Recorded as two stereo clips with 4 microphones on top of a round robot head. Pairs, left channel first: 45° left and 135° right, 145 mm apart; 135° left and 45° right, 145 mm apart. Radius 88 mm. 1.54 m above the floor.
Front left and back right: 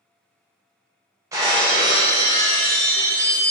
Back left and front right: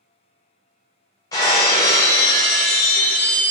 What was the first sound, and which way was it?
Breaking glass, 175° left.